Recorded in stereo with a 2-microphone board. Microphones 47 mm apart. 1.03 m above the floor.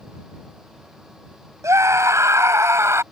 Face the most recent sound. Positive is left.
turn(degrees=-65)  # may be behind; listen again after turning